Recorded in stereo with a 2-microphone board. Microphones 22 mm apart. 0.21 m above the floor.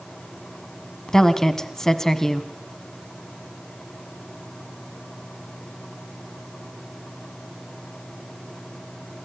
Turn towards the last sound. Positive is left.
turn(degrees=25)  # may be behind; listen again after turning